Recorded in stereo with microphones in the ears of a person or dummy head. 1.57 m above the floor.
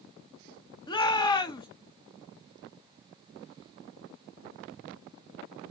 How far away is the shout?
About 0.7 m.